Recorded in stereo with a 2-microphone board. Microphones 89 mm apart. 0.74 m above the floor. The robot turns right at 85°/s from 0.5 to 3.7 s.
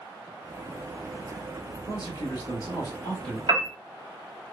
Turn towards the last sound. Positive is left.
turn(degrees=-70)  # may be behind; listen again after turning